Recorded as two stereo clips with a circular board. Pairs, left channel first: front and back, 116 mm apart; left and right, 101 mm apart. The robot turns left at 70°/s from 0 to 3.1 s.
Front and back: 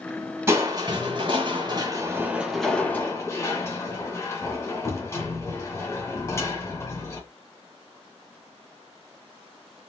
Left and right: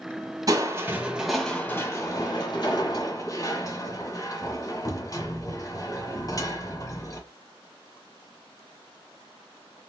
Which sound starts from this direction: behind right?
Crushing, at 0.5 s.